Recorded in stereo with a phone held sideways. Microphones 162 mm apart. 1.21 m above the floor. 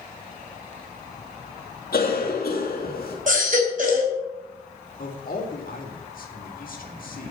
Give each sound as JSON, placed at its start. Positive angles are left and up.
{"t": 1.9, "sound": "a cough", "side_deg": 70, "distance_m": 3.0}
{"t": 3.3, "sound": "a baby crying", "side_deg": -50, "distance_m": 2.5}
{"t": 5.0, "sound": "a man speaking", "side_deg": 60, "distance_m": 2.5}